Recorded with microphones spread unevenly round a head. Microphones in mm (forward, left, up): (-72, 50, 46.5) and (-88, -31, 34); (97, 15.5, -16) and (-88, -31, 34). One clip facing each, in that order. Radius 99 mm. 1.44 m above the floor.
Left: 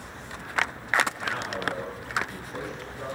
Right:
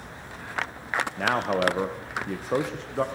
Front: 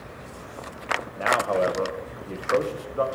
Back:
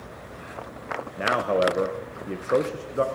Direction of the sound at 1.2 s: 100° right.